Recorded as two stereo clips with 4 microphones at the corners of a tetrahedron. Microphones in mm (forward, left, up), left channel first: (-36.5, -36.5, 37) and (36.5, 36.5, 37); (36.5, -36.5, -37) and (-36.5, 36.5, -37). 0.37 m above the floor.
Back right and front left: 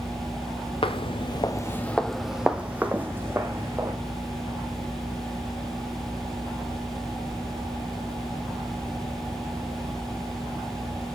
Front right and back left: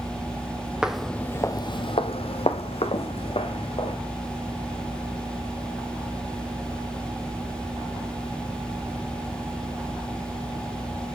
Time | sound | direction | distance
0.8 | footsteps | 140° right | 0.7 m